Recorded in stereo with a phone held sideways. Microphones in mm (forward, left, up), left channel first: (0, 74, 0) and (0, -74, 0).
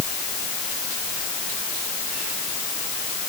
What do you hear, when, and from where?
Only background noise.